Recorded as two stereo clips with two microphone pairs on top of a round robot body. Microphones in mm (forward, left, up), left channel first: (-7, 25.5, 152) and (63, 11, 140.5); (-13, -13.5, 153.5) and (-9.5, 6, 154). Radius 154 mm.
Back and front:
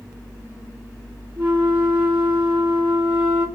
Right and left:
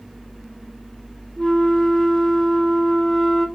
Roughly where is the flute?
Ahead right.